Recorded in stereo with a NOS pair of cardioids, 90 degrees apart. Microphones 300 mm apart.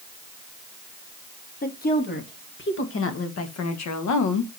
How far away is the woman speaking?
About 2.5 m.